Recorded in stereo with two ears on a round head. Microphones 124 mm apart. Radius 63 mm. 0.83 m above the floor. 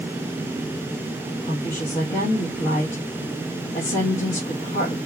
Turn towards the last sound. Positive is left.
turn(degrees=55)  # may be behind; listen again after turning